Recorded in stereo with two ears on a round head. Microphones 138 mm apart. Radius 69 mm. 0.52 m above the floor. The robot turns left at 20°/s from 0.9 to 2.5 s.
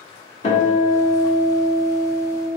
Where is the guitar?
120° left, 1.1 m; by 2.5 s 85° left, 1.1 m.